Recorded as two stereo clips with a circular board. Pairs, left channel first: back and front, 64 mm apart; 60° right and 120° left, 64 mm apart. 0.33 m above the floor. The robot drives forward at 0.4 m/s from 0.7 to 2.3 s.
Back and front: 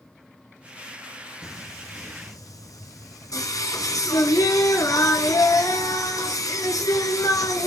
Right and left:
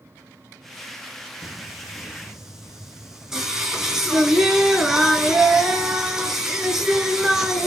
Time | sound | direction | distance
1.4 | singing | 155° right | 4 m